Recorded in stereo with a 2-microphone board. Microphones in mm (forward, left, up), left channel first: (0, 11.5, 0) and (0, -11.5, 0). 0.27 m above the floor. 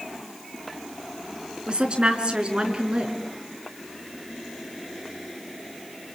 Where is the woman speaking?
45° right (ahead or behind), 4 m.